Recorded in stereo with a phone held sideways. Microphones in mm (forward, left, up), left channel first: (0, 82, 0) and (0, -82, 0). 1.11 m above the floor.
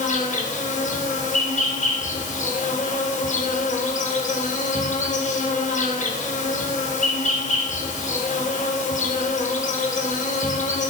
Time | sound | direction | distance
0.0 | an insect | 55° left (ahead or behind) | 4 m